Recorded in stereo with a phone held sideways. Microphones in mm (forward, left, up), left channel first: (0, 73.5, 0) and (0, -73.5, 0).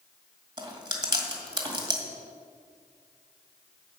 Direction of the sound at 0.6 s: 30° right (ahead or behind).